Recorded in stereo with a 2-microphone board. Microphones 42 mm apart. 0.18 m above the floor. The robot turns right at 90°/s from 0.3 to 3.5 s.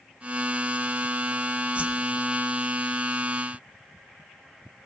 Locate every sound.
1.8 s a whoosh: 30° right (ahead or behind), 1.1 m; by 2.1 s 40° right (ahead or behind), 1.1 m